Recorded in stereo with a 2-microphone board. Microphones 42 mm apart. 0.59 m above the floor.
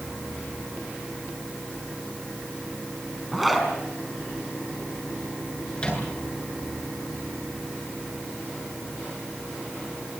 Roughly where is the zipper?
Centre.